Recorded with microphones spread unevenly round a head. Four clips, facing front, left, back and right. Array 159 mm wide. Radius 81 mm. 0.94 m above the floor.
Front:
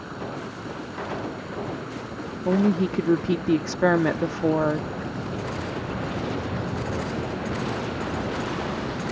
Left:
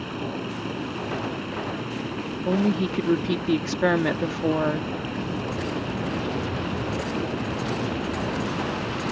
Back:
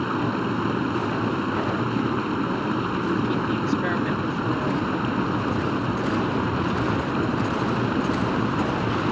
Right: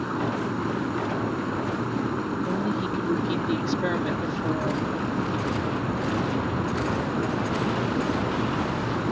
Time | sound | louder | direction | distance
0.0 | running water | right 4 dB, back 9 dB | 160° right | ?
2.5 | a woman speaking | left 3 dB, front 3 dB | 30° left | ?